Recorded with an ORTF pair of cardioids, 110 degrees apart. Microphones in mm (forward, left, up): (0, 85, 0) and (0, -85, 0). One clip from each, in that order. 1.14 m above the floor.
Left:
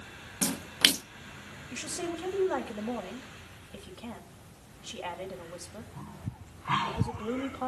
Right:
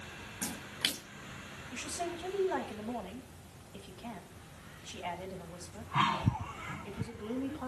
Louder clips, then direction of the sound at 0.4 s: Left 10 dB; 45° left.